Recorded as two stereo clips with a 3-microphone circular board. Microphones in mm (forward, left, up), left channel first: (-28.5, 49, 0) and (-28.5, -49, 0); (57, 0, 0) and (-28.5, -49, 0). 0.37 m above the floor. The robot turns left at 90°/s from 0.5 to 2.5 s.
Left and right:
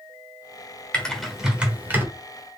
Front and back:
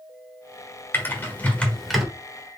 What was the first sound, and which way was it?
Typing on a keyboard, 30° left.